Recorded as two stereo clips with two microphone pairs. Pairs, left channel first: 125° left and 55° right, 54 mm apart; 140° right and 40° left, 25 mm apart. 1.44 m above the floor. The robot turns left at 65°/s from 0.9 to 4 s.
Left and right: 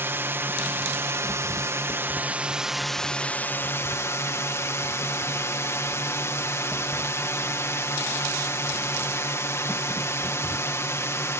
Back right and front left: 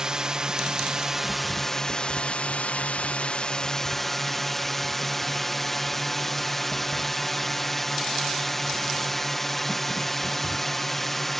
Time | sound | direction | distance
0.0 | a drone | 20° right | ?